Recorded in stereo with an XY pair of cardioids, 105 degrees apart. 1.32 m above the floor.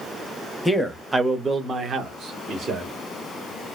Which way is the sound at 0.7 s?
5° left.